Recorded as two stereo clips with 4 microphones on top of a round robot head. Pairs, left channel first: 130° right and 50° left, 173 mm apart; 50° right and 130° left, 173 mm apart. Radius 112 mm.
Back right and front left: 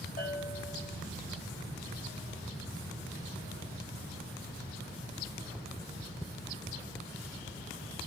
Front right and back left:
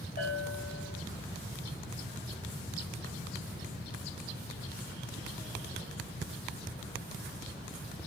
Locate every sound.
0.2 s a bell: 85° right, 6.5 m